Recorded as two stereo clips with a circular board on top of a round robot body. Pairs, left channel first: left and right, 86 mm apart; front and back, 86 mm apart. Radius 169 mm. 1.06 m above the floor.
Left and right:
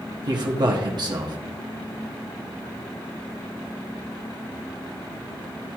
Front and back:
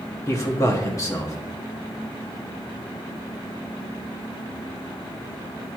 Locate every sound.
0.3 s a man speaking: 55° right, 1.0 m